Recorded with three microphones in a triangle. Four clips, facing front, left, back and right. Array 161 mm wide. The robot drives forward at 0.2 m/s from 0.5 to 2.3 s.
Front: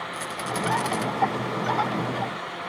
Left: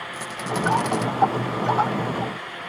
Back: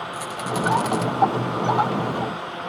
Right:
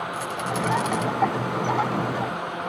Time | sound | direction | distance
0.1 | a rattle | 110° left | 1.1 m